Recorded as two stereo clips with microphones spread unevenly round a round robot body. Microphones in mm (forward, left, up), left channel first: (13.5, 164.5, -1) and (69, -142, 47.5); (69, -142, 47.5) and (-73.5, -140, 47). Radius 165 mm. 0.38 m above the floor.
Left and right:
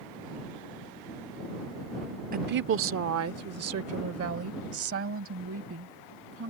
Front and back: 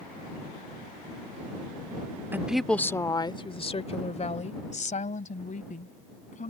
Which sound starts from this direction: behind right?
A woman speaking, at 2.3 s.